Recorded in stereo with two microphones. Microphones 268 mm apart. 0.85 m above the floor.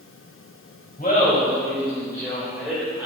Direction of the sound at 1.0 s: 30° left (ahead or behind).